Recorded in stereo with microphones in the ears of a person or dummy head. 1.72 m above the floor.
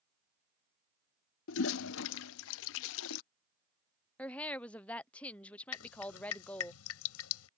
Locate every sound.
1.5 s a toilet flushing: 70° left (ahead or behind)
4.2 s a woman speaking: 10° left (ahead or behind)
5.7 s dripping: 85° left